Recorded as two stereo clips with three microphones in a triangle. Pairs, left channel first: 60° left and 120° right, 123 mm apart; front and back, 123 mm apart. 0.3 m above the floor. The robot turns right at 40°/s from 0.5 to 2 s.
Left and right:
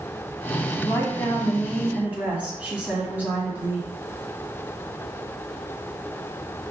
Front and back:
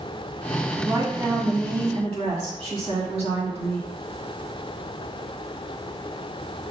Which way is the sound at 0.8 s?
115° left.